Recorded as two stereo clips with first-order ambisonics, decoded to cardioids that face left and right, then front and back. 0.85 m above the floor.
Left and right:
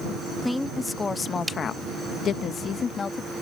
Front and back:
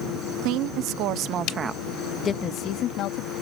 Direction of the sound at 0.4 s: 170° left.